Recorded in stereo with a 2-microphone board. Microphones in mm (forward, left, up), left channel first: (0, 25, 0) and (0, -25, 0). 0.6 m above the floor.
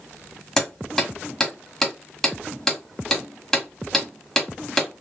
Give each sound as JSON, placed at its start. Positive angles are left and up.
{"t": 0.6, "sound": "hammering", "side_deg": 5, "distance_m": 1.8}